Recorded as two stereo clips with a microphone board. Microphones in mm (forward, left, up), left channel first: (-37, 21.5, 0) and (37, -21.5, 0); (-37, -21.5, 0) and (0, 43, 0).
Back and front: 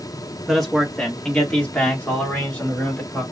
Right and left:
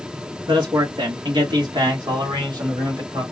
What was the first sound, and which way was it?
A man speaking, 60° left.